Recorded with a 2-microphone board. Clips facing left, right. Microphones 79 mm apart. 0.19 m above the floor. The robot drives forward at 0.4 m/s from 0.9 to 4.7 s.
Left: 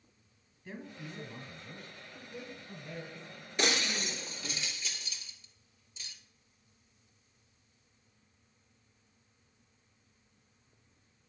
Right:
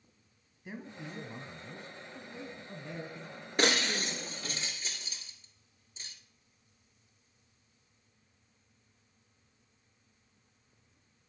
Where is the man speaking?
15° right (ahead or behind), 1.1 m; by 4.6 s 10° right (ahead or behind), 2.0 m.